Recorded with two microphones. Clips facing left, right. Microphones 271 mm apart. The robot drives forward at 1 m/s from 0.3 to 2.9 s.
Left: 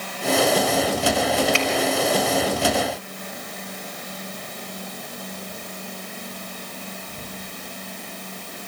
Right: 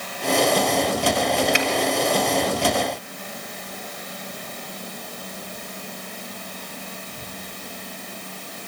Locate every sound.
1.5 s a finger snap: 20° right (ahead or behind), 2.5 m; by 1.7 s 15° right (ahead or behind), 2.5 m